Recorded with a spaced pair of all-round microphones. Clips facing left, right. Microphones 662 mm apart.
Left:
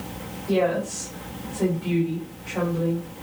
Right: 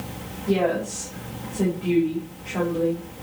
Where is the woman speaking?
80° right, 3.5 m.